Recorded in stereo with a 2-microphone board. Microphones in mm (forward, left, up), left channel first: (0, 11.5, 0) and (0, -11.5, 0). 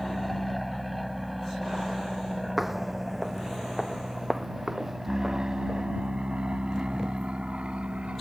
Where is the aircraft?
5° left (ahead or behind); by 8.2 s 55° right (ahead or behind).